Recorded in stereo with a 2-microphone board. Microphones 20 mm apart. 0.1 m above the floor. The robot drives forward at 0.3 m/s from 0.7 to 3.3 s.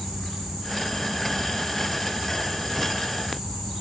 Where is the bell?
No bell in this recording.